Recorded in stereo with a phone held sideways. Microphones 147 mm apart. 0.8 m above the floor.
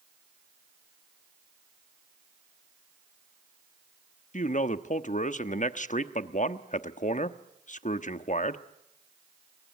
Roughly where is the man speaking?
Left.